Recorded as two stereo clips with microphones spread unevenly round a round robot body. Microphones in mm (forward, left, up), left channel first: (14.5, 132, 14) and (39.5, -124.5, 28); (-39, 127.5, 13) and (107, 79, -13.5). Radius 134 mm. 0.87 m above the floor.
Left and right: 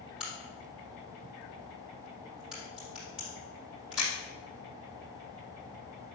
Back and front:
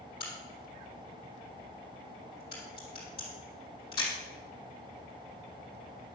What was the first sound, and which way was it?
A crack, 170° right.